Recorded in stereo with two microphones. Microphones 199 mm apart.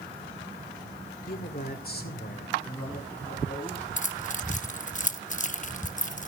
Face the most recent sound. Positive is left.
turn(degrees=40)  # may be behind; listen again after turning